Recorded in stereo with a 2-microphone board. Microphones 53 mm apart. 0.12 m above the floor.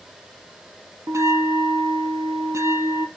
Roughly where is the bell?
Right.